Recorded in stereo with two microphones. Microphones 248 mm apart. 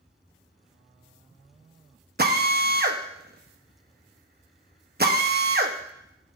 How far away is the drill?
About 1.0 m.